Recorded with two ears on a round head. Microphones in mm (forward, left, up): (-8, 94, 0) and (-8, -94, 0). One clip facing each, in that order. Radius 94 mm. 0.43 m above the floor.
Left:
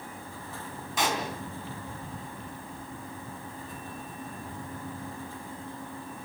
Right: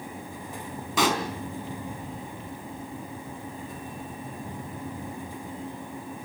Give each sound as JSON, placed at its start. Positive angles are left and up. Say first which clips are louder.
{"t": 1.0, "sound": "a pop", "louder": "right 5 dB", "side_deg": -60, "distance_m": 4.0}